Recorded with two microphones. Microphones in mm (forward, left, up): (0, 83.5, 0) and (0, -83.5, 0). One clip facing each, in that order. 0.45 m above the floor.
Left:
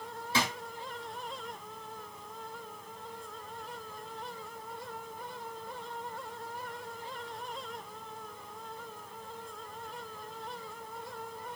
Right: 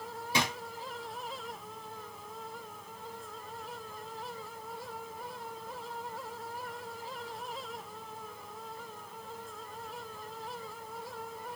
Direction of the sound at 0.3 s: 15° right (ahead or behind).